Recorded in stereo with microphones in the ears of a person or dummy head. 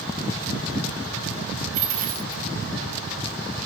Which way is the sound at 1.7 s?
45° right (ahead or behind).